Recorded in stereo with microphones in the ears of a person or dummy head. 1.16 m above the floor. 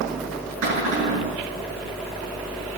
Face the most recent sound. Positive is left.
turn(degrees=-65)  # may be behind; listen again after turning